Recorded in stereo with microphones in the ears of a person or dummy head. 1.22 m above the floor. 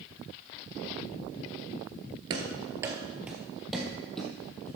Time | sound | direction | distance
2.3 | running footsteps | 30° right (ahead or behind) | 1.3 m